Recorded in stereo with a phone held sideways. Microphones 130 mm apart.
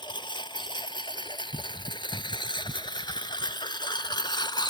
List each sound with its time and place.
0.0 s a lawn mower: 35° left (ahead or behind)